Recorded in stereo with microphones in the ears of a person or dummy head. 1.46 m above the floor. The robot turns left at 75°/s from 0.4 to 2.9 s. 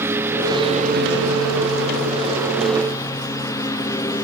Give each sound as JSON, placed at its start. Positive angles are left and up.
{"t": 0.0, "sound": "a lawn mower", "side_deg": -15}